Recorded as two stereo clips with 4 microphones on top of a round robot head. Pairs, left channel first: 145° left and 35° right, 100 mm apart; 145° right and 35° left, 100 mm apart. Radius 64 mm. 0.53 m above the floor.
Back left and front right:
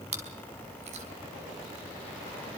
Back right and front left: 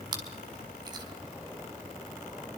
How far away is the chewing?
About 4.5 m.